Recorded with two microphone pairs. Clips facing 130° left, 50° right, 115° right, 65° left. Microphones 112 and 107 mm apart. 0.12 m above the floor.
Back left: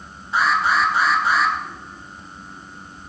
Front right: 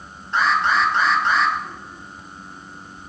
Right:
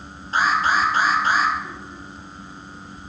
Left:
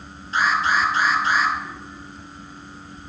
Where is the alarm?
145° right, 2 m.